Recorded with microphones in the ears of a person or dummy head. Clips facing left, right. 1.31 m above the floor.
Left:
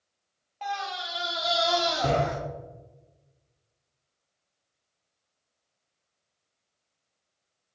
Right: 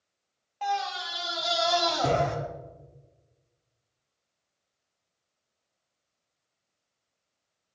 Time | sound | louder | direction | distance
0.6 | a scream | right 3 dB | 10° right (ahead or behind) | 2.5 m